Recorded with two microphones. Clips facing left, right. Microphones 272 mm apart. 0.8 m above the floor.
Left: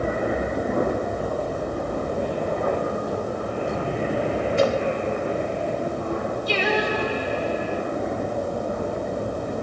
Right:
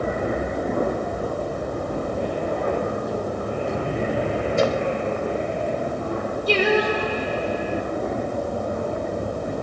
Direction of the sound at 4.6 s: 45° right (ahead or behind).